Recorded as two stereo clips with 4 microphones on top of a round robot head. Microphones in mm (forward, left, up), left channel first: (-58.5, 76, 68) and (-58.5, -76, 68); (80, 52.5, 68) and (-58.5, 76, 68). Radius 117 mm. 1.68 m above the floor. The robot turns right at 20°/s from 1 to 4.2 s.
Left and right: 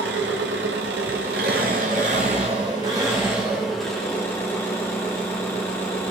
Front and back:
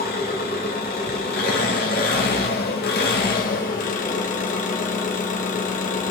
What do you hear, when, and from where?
0.0 s an engine running: 55° right, 1.4 m; by 6.1 s 10° left, 1.4 m